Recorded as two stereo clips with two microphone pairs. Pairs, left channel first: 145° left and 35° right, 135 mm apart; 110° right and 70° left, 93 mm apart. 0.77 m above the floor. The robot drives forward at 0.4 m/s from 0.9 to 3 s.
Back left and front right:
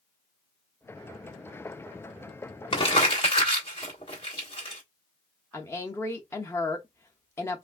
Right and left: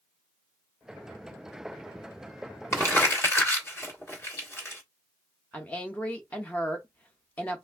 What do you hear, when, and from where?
2.7 s crumpling: 165° right, 1.5 m
5.5 s a woman speaking: 160° right, 0.6 m